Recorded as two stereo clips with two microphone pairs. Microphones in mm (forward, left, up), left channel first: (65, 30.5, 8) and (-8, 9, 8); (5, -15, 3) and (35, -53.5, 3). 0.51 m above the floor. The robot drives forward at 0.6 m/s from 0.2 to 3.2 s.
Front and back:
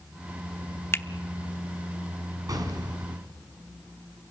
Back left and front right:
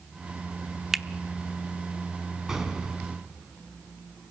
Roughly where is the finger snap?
Ahead left.